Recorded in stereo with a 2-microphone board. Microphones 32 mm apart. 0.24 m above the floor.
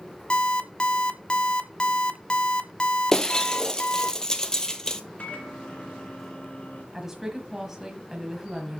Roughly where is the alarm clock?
Left.